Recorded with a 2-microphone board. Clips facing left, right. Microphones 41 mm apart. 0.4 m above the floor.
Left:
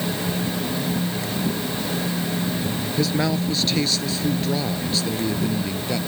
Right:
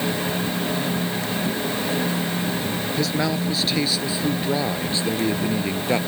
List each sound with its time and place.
3.0 s a man speaking: centre (ahead or behind); by 6.0 s 35° right (ahead or behind)